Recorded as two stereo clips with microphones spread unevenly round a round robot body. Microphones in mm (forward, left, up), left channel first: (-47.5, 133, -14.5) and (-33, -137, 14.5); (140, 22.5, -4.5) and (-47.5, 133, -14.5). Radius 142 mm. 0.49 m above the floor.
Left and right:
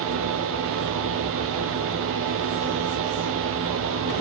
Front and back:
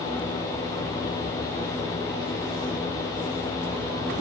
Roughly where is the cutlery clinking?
I don't hear cutlery clinking.